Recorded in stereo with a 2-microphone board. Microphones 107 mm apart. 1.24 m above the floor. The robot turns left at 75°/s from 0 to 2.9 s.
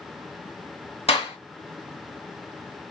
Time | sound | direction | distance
1.1 | a clap | 80° left | 2.5 m